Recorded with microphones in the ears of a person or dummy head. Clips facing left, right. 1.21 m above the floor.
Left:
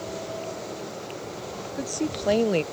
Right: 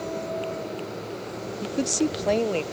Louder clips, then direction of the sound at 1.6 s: Right 5 dB; 45° right (ahead or behind).